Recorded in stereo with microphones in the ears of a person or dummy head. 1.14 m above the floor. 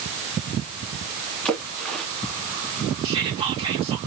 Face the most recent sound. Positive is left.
turn(degrees=-25)  # may be behind; listen again after turning